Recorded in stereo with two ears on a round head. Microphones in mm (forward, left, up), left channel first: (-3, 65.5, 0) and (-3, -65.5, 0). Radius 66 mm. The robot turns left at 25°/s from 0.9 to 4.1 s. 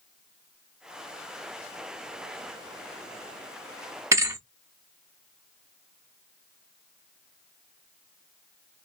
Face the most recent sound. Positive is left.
turn(degrees=-20)  # may be behind; listen again after turning